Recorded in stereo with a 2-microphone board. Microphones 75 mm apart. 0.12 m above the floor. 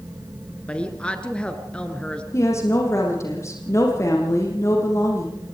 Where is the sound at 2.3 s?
35° left (ahead or behind), 5.5 m.